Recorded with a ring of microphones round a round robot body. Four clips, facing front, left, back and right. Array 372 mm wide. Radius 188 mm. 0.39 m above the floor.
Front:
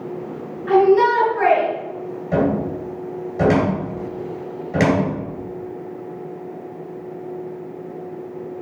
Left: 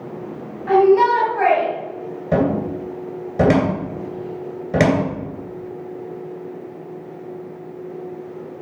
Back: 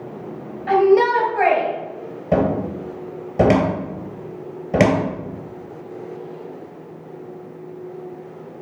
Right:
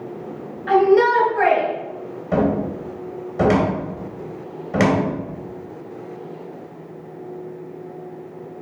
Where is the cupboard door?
145° left, 2.5 m.